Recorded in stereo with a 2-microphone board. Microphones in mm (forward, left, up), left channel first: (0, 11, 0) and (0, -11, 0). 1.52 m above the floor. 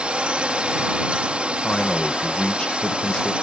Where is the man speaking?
55° left (ahead or behind).